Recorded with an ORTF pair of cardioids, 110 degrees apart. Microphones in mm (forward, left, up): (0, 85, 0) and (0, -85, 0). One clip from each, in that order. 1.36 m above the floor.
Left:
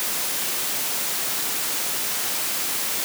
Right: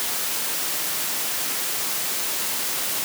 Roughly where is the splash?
I don't hear a splash.